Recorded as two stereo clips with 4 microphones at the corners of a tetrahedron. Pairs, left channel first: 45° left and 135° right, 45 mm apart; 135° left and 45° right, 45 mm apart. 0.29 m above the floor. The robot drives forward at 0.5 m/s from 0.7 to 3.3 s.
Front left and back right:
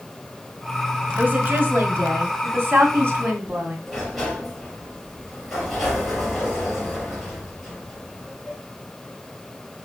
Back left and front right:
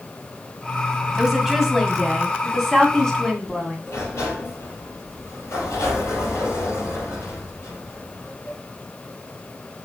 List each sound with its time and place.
1.2 s a woman speaking: 125° right, 1.7 m; by 3.8 s 150° right, 2.5 m
3.9 s a sliding door: 130° left, 3.5 m